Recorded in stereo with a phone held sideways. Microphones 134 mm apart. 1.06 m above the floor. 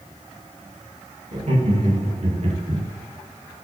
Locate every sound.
1.3 s laughter: 60° right (ahead or behind), 3 m; by 2.8 s 65° right (ahead or behind), 1.8 m